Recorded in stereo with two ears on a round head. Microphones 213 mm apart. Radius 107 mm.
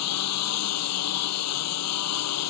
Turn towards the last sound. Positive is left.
turn(degrees=75)  # may be behind; listen again after turning